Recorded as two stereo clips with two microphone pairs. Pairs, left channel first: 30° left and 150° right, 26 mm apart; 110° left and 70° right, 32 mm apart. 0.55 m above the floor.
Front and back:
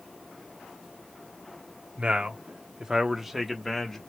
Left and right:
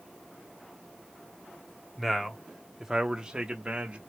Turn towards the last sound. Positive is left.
turn(degrees=-40)